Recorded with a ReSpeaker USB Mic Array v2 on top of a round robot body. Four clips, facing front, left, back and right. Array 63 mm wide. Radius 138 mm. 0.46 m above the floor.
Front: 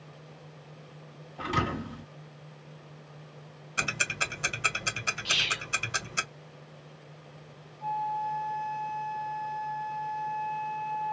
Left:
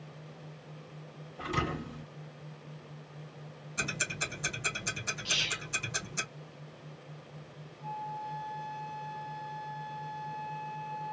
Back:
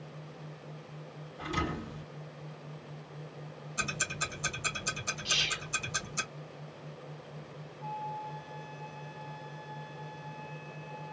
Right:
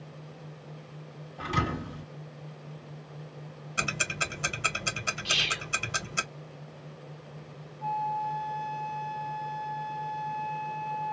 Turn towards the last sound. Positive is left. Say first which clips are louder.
# right 9 dB, front 8 dB
turn(degrees=-40)